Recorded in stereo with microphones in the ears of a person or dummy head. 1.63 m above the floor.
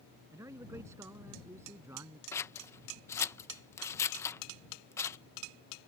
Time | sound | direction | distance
0.3 | a man speaking | 20° right (ahead or behind) | ?
2.3 | scissors | 15° left (ahead or behind) | ?